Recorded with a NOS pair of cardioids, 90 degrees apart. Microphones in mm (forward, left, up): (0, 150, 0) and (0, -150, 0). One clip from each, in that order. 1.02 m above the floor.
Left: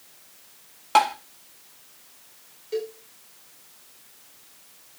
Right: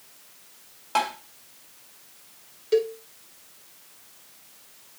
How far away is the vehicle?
I don't hear a vehicle.